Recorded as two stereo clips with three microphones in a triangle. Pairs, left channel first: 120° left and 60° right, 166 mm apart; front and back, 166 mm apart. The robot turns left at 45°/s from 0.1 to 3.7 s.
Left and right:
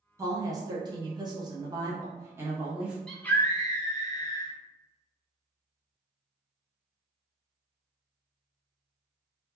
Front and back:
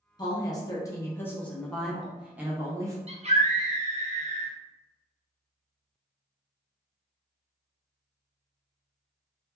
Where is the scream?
155° right, 0.6 m; by 4.5 s 175° left, 0.6 m.